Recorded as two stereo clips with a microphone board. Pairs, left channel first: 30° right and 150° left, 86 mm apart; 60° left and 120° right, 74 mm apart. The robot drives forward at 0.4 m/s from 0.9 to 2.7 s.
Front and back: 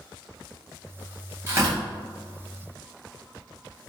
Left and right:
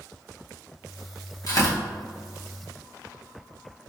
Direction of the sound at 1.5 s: 95° left.